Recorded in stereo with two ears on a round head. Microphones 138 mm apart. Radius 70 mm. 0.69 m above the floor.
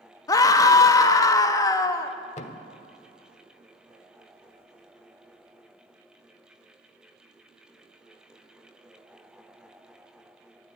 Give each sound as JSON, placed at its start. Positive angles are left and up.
{"t": 0.3, "sound": "a scream", "side_deg": 20, "distance_m": 0.9}
{"t": 2.4, "sound": "a thud", "side_deg": 45, "distance_m": 0.9}